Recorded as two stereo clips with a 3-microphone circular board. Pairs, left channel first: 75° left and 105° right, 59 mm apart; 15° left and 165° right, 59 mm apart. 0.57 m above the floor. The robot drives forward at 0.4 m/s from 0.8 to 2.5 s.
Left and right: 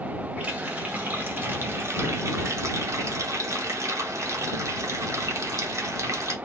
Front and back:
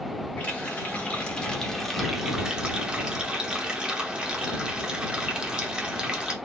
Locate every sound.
0.4 s a running tap: 45° right, 0.9 m; by 6.4 s 95° right, 0.7 m